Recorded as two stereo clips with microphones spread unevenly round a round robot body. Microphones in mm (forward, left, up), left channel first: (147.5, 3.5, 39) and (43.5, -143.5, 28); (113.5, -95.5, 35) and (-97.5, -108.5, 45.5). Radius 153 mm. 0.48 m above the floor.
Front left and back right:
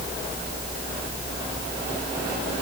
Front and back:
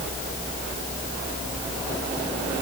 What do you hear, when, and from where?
Only background noise.